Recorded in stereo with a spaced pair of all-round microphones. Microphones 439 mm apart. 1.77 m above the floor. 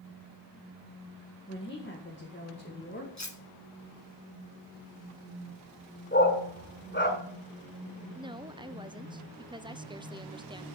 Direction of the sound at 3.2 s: 40° left (ahead or behind).